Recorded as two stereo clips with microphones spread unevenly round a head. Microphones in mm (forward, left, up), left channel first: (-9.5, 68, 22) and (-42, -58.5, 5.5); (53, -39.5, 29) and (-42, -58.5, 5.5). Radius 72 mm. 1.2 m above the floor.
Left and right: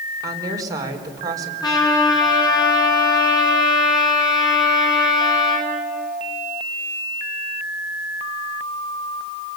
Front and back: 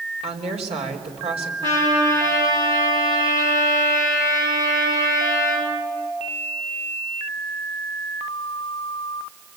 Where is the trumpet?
135° left, 7 m.